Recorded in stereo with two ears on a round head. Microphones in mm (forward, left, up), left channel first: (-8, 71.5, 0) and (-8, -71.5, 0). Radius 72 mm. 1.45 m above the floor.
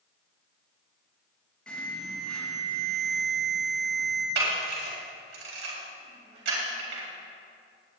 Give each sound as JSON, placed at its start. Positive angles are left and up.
{"t": 1.7, "sound": "an alarm", "side_deg": 5, "distance_m": 2.5}
{"t": 4.3, "sound": "a camera shutter", "side_deg": -80, "distance_m": 4.5}